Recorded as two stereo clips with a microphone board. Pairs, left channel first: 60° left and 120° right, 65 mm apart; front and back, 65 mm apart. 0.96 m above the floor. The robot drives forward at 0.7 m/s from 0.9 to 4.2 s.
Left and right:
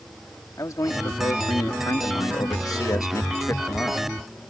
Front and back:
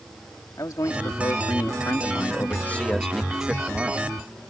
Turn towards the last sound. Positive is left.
turn(degrees=125)